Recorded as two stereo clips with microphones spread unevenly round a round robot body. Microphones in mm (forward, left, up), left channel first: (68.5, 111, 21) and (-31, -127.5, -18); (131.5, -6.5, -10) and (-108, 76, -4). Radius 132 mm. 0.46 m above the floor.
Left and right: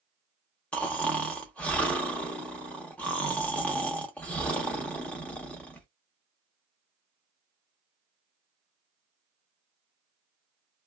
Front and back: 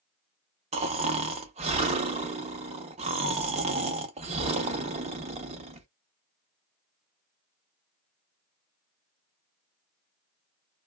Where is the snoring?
170° left, 0.6 m.